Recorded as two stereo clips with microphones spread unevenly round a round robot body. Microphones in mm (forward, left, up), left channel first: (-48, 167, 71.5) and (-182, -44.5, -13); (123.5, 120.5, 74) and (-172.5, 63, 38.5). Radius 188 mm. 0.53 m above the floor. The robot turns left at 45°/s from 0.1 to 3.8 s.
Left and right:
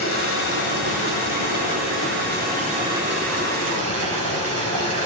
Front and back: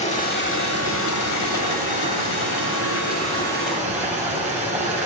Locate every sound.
0.0 s running water: 80° left, 2.5 m; by 5.1 s 85° right, 2.5 m